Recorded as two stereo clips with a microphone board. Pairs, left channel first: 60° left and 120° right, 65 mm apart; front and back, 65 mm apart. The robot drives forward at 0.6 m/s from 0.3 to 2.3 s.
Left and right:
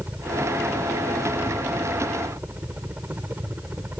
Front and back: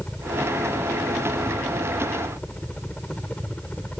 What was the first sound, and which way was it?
A helicopter, 60° right.